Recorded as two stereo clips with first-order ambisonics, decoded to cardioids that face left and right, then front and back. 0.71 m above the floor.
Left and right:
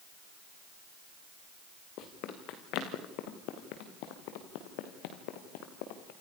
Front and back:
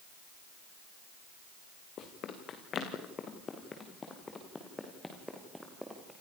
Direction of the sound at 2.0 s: 50° left.